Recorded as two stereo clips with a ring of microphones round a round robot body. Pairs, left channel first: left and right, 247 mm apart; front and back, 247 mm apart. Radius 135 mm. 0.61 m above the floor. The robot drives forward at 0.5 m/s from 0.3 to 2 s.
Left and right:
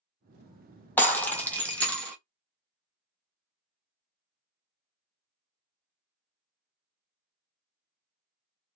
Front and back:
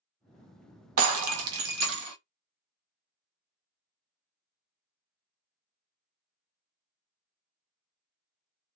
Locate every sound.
1.0 s breaking glass: 170° left, 0.8 m; by 2.2 s 175° left, 1.3 m